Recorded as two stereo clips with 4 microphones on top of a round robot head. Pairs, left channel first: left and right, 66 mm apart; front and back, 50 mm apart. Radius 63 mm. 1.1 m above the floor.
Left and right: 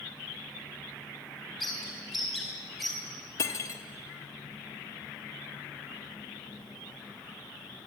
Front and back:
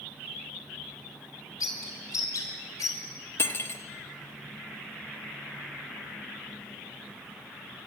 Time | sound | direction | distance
1.6 | a bird | straight ahead | 3.5 m
3.4 | cutlery clinking | 35° left | 1.3 m